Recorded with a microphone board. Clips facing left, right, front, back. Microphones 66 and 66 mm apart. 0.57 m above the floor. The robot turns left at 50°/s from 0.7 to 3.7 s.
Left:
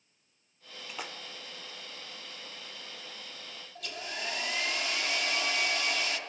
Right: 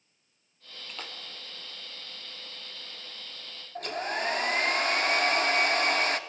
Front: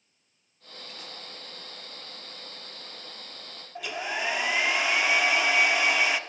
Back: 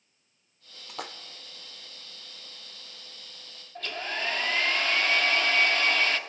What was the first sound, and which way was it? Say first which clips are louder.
A splash: left 2 dB, back 8 dB; 175° left.